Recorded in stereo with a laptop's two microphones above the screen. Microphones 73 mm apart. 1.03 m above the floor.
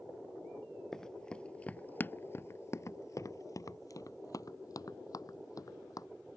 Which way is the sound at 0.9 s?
5° left (ahead or behind).